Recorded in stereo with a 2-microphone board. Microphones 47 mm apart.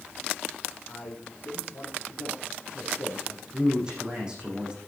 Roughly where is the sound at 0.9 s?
Left.